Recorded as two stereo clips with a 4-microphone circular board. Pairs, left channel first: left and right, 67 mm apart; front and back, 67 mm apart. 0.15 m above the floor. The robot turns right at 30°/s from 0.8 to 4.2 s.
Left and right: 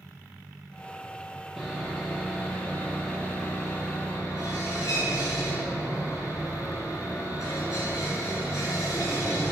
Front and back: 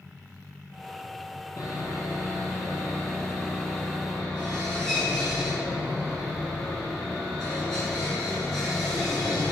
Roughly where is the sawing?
Ahead.